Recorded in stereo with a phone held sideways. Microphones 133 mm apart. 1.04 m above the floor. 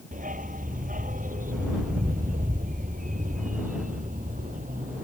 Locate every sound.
0.1 s a dog barking: 85° right; by 5.0 s 75° right (ahead or behind)